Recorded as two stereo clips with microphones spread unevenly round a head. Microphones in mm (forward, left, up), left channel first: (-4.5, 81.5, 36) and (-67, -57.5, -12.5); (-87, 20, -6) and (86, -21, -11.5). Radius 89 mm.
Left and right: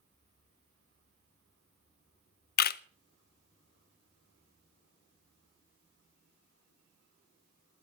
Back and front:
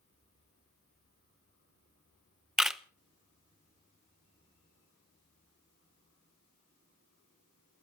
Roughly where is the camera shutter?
Left.